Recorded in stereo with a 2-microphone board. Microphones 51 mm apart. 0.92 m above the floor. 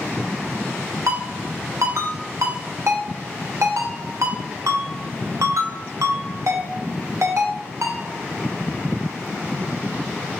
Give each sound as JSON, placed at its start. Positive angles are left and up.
{"t": 1.1, "sound": "a ringtone", "side_deg": -75, "distance_m": 0.6}